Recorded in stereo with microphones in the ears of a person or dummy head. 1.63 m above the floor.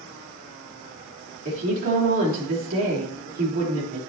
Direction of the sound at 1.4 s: 45° right (ahead or behind).